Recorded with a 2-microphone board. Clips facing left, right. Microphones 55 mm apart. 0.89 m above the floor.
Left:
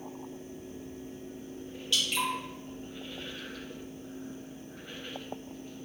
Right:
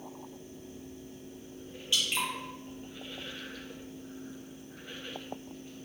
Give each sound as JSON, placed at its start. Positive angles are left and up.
{"t": 1.9, "sound": "dripping", "side_deg": -20, "distance_m": 1.1}